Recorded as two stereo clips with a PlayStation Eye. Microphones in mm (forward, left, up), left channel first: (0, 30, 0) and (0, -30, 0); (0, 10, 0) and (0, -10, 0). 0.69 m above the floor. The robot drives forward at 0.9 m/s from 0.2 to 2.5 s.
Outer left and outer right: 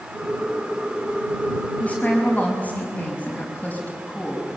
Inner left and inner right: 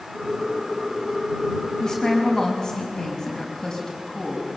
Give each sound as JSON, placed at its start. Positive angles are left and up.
{"t": 1.8, "sound": "a woman speaking", "side_deg": 25, "distance_m": 5.5}